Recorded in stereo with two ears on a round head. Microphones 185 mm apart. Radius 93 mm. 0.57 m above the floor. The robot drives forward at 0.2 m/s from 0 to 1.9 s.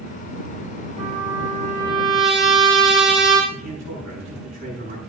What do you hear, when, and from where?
1.0 s a trumpet: 35° right (ahead or behind), 6.5 m; by 3.4 s 30° right (ahead or behind), 7 m
3.5 s a man speaking: 35° right (ahead or behind), 7.5 m